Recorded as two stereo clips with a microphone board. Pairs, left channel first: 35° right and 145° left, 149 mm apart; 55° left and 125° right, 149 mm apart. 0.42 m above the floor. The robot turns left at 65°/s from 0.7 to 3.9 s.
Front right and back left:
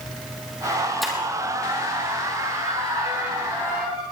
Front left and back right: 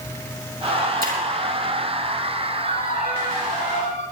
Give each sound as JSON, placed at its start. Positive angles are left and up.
{"t": 1.0, "sound": "breaking glass", "azimuth_deg": -125, "distance_m": 5.0}
{"t": 2.6, "sound": "a violin", "azimuth_deg": 100, "distance_m": 9.5}